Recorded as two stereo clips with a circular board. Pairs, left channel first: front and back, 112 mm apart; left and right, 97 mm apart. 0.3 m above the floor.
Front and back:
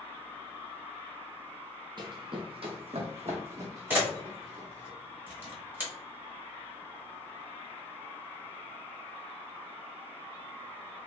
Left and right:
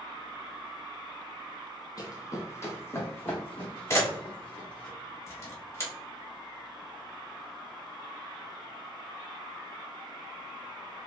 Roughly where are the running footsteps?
Behind left.